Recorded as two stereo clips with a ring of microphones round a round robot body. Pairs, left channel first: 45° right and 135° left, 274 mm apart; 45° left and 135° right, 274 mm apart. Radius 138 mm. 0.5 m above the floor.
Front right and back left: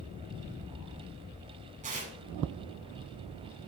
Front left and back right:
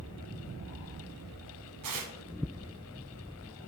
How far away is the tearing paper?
About 1.0 m.